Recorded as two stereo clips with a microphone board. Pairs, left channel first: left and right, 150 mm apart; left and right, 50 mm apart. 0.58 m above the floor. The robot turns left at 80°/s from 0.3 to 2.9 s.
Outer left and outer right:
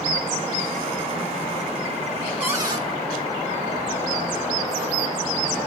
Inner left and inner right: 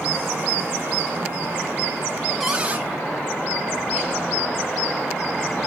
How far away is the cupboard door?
About 3 m.